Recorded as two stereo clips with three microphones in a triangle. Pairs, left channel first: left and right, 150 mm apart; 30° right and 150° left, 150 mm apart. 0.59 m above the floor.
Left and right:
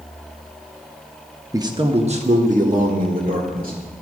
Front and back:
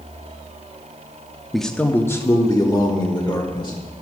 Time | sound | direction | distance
1.5 | a man speaking | 120° right | 0.7 m